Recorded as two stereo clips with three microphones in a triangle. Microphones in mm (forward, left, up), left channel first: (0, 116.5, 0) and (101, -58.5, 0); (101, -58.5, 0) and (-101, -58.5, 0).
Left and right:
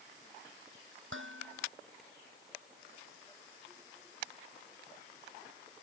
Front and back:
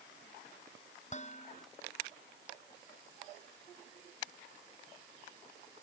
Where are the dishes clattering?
55° right.